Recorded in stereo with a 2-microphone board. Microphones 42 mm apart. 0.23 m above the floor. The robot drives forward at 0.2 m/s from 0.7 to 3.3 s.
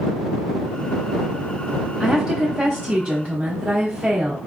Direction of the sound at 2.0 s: 10° right (ahead or behind).